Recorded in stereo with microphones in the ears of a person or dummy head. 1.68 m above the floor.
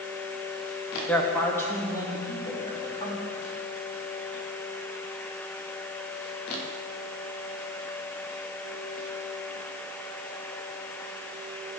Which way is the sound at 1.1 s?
5° left (ahead or behind).